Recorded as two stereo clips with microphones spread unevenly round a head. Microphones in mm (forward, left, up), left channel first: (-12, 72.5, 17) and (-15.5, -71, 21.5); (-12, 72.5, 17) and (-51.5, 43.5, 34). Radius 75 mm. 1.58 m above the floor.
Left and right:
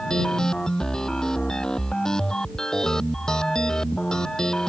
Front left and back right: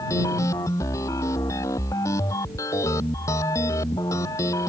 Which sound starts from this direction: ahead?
A machine running, at 0.0 s.